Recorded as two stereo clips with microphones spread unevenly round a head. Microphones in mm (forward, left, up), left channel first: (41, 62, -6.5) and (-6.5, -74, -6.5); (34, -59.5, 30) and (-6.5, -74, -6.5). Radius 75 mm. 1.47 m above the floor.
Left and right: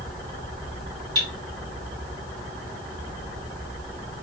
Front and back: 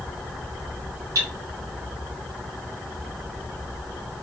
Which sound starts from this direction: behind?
Cutlery clinking, at 1.1 s.